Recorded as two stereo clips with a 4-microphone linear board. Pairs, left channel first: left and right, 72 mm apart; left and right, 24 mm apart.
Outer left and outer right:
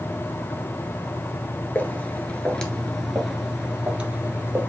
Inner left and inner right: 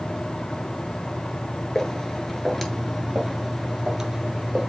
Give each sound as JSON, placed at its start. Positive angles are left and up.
{"t": 1.8, "sound": "footsteps", "side_deg": 25, "distance_m": 1.7}